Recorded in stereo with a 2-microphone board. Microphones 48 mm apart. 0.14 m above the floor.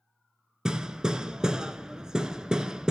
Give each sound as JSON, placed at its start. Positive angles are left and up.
{"t": 0.7, "sound": "hammering", "side_deg": -15, "distance_m": 0.6}